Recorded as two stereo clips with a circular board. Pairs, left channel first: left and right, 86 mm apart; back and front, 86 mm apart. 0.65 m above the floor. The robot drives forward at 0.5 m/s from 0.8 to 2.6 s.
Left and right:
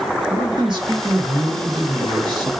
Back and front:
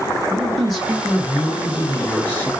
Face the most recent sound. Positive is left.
turn(degrees=-115)